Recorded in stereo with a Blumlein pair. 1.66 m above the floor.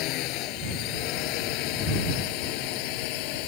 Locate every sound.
0.0 s a drone: 40° left; by 3.5 s 45° left